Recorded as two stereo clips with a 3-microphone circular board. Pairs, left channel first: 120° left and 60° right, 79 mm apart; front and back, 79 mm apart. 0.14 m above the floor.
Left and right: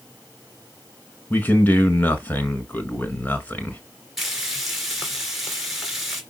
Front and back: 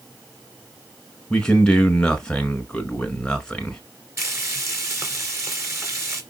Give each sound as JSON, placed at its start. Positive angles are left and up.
{"t": 1.3, "sound": "a man speaking", "azimuth_deg": 75, "distance_m": 1.6}
{"t": 4.2, "sound": "frying", "azimuth_deg": -145, "distance_m": 2.5}